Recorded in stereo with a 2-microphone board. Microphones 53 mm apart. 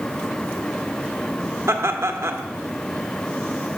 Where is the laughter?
60° right (ahead or behind), 1.2 m.